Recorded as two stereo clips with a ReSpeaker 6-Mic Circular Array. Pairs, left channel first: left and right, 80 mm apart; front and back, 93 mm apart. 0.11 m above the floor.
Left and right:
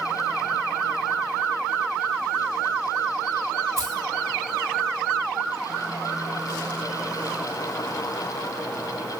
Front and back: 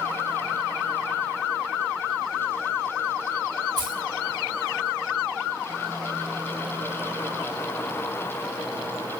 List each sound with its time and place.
3.8 s keys jangling: 140° right, 5 m